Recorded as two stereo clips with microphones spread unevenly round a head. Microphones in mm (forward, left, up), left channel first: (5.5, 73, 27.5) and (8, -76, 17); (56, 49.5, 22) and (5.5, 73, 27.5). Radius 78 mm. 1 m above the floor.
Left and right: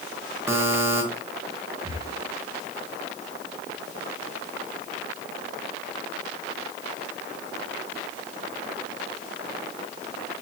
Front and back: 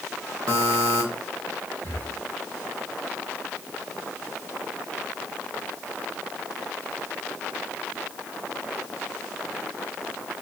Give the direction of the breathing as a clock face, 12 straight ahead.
5 o'clock.